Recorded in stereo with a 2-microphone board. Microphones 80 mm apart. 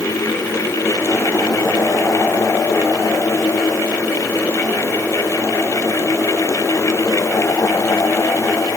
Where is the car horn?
I don't hear a car horn.